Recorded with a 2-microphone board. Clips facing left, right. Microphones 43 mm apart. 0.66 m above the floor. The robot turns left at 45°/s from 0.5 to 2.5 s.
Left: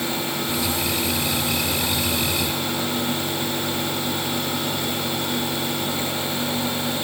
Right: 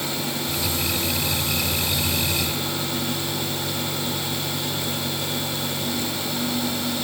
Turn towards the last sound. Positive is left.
No sound to turn to.